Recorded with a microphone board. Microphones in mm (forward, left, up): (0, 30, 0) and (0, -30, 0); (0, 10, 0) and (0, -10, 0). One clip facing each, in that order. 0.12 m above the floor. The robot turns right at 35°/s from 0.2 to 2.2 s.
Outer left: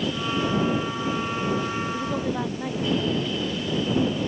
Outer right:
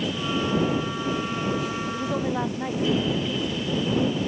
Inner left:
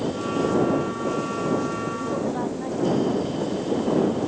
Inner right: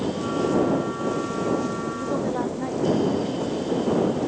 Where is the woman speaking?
Centre (ahead or behind); by 3.8 s 10° right (ahead or behind).